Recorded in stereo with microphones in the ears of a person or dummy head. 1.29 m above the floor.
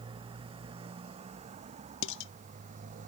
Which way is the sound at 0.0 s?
30° right (ahead or behind).